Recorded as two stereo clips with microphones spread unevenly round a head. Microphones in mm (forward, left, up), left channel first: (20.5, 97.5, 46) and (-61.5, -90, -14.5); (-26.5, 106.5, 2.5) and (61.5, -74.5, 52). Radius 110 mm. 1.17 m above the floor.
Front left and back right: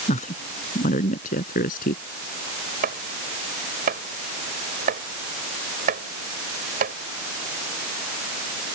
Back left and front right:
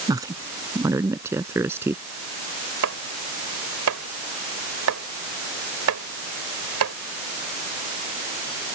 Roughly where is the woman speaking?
Ahead.